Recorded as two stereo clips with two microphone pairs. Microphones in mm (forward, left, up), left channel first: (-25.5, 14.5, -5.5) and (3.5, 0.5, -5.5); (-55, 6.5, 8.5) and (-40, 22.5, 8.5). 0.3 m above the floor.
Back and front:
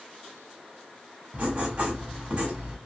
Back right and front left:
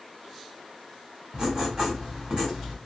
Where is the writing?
15° left, 1.3 m.